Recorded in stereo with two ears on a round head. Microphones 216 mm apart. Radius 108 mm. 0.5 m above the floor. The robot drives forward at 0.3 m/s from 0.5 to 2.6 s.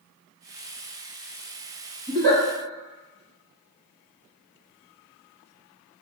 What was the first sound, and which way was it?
A giggle, 30° right (ahead or behind).